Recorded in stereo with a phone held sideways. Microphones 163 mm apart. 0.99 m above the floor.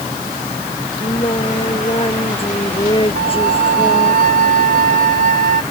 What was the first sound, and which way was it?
Singing, 35° left (ahead or behind).